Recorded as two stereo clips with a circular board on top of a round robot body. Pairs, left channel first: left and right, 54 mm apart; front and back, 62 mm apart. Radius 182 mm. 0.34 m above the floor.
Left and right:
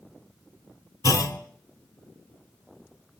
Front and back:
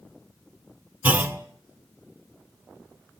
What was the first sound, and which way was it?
A clunk, 115° left.